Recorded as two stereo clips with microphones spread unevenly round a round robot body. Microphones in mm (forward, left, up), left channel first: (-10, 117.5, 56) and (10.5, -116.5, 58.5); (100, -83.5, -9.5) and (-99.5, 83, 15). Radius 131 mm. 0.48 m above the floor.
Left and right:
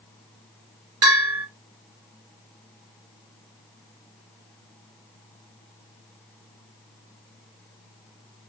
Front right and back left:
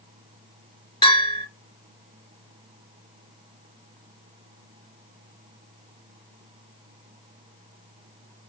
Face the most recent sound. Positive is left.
turn(degrees=-115)